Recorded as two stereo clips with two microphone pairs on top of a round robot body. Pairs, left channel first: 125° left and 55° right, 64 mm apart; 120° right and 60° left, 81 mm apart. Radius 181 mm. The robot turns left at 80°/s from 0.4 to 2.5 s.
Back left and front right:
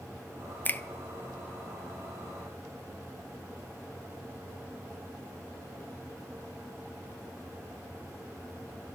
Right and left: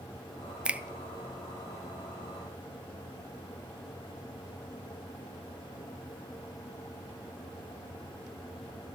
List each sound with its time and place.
0.7 s a finger snap: 125° left, 0.6 m; by 0.8 s 115° left, 0.6 m